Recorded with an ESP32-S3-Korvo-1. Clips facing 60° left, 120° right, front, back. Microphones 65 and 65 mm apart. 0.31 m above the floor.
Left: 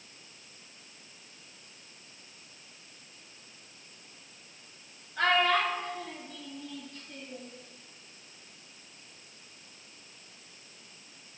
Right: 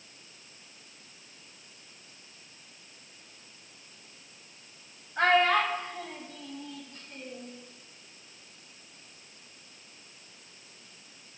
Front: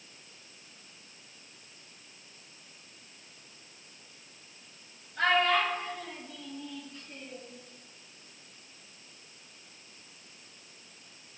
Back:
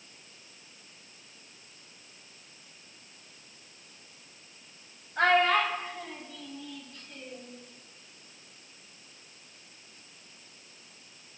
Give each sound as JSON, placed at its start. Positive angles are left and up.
{"t": 5.2, "sound": "a child speaking", "azimuth_deg": -165, "distance_m": 1.1}